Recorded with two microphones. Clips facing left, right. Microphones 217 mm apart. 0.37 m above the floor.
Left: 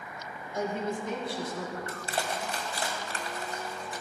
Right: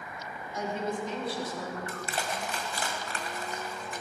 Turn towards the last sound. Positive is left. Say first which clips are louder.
# left 1 dB
turn(degrees=35)  # may be behind; listen again after turning